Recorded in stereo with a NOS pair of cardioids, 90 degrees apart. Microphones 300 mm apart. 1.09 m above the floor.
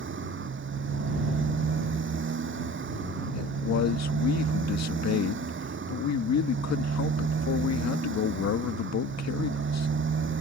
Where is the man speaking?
65° left.